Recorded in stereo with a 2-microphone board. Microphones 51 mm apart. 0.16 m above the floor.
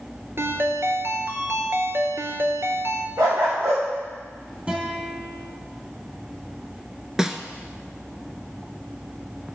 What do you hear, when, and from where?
0.4 s a ringtone: 55° right (ahead or behind), 1.0 m
3.2 s a dog barking: 85° right, 4 m
4.7 s a guitar: 25° right (ahead or behind), 2.5 m
7.2 s a snare drum: 10° right (ahead or behind), 0.8 m